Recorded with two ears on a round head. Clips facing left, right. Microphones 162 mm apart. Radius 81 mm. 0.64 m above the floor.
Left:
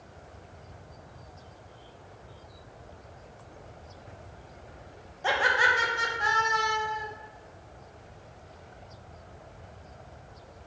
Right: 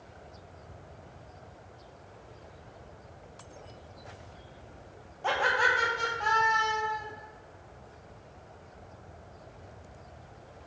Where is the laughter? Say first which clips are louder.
Left 1 dB; 10° left (ahead or behind), 0.5 m.